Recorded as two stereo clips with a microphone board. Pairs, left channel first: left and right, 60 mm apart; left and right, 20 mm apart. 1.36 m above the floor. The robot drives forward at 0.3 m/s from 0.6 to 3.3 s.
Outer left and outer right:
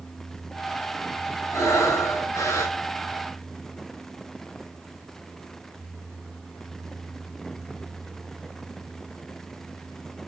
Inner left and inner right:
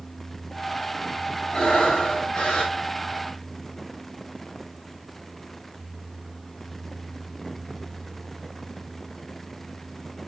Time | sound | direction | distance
1.5 | breathing | 50° left (ahead or behind) | 8 m